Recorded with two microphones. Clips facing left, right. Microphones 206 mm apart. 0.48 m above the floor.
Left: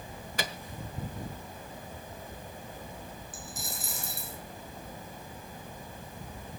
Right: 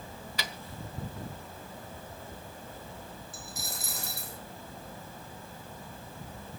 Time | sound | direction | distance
0.4 | a microwave | 50° left (ahead or behind) | 1.3 m
3.3 | a dropped coin | 70° right (ahead or behind) | 3.5 m